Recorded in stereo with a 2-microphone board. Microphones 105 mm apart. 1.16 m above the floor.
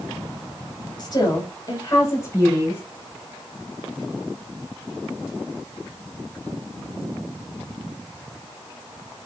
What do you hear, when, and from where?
1.0 s a woman speaking: 45° left (ahead or behind), 5.5 m; by 2.8 s 20° left (ahead or behind), 5.5 m